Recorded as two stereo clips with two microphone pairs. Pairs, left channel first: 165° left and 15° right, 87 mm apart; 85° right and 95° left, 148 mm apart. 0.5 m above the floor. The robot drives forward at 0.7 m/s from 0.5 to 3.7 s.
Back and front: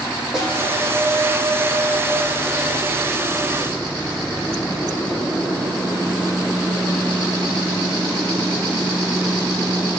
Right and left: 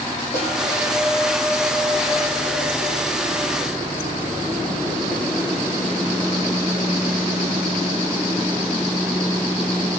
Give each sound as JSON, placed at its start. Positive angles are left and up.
{"t": 0.3, "sound": "a snare drum", "azimuth_deg": -100, "distance_m": 9.0}